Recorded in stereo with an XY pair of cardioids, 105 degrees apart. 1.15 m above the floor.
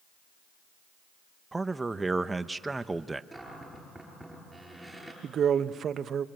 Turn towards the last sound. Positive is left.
turn(degrees=-50)